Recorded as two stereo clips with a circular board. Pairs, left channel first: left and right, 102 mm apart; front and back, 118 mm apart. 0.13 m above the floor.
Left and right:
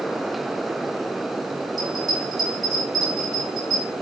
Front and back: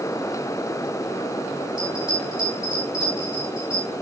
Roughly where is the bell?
Behind right.